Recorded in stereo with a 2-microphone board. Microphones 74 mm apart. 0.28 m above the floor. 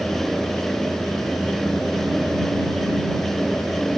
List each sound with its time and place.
Only background noise.